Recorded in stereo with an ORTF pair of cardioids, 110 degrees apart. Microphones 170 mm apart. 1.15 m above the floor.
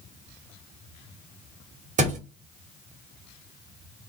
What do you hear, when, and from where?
2.0 s a thud: 50° right, 1.5 m